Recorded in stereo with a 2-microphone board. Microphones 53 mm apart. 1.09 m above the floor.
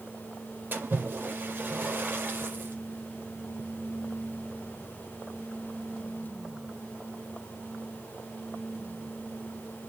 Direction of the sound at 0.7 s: 35° right (ahead or behind).